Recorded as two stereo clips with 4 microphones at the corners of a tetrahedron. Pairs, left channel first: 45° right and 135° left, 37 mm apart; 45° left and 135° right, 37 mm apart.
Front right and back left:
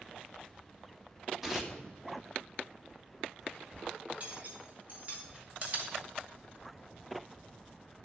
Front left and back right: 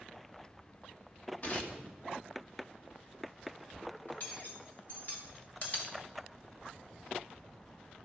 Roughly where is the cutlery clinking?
Left.